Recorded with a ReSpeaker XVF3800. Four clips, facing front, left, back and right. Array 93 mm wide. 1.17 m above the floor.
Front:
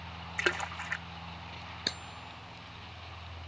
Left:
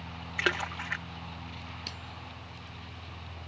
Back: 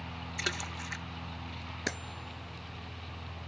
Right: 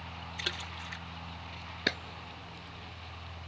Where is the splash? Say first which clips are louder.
Left 11 dB, front 6 dB; 55° left.